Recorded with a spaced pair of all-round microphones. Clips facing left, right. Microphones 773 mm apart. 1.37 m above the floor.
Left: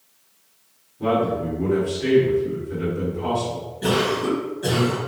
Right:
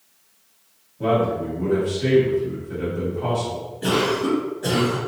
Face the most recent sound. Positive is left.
turn(degrees=40)  # may be behind; listen again after turning